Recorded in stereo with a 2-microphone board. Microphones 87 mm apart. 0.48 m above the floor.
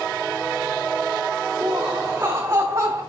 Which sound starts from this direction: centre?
Laughter, at 1.6 s.